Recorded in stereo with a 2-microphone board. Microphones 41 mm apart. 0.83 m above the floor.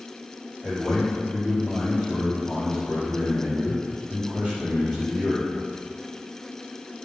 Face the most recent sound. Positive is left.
turn(degrees=-35)  # may be behind; listen again after turning